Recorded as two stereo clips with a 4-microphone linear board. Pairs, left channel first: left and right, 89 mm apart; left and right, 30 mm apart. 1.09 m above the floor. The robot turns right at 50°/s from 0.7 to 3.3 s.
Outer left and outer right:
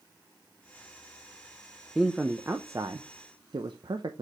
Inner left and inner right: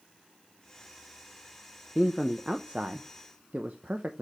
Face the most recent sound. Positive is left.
turn(degrees=-110)